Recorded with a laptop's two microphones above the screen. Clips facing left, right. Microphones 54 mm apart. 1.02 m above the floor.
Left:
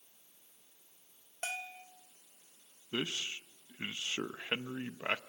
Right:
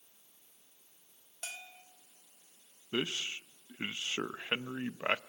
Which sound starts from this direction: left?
A bell, at 1.4 s.